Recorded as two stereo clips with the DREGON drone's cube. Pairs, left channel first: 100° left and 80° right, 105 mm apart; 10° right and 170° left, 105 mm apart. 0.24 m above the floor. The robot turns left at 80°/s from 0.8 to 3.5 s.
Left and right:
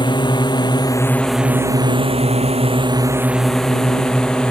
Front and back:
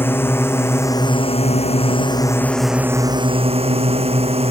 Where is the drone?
60° left; by 4.5 s 175° right.